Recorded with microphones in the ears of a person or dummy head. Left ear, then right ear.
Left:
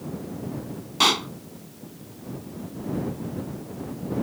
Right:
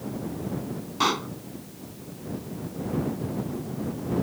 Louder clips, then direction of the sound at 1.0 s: Left 4 dB; 25° left (ahead or behind).